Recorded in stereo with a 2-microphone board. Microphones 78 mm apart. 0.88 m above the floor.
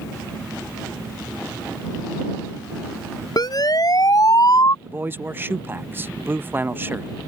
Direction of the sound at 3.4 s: 55° left (ahead or behind).